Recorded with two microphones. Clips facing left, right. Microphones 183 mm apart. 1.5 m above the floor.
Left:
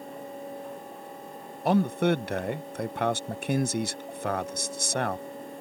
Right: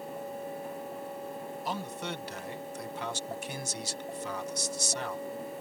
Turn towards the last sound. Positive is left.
turn(degrees=65)  # may be behind; listen again after turning